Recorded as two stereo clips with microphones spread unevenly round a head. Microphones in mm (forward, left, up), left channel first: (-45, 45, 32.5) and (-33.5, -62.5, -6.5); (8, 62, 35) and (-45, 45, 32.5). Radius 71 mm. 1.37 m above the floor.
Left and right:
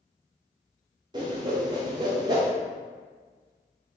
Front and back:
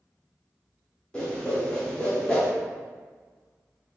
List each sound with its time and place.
1.1 s a whoosh: 25° right, 0.6 m